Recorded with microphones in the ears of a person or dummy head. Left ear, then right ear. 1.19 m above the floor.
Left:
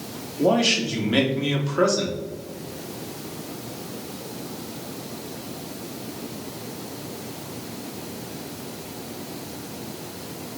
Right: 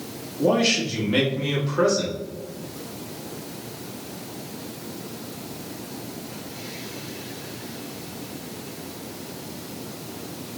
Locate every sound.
0.4 s a man speaking: 15° left (ahead or behind), 1.0 m